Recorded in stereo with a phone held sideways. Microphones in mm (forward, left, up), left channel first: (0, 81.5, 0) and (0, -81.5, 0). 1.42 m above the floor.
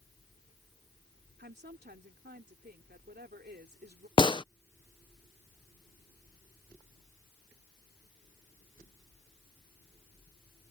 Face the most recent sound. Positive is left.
turn(degrees=30)  # may be behind; listen again after turning